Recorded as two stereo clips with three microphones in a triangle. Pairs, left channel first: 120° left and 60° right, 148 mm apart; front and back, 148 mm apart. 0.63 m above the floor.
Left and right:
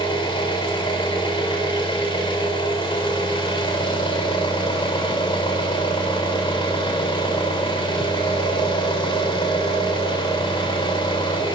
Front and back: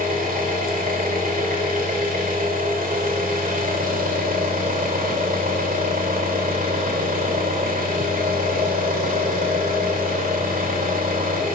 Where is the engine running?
175° left, 1.8 m.